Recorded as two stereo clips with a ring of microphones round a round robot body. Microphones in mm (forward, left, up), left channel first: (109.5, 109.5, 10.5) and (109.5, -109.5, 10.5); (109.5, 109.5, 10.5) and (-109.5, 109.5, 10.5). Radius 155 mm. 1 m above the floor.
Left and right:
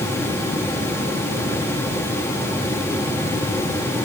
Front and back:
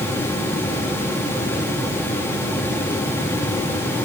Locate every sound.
Only background noise.